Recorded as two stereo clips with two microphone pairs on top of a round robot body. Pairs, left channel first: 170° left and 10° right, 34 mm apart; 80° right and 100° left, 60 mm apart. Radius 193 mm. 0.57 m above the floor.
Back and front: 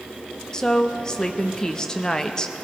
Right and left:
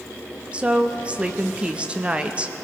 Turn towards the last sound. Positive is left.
turn(degrees=140)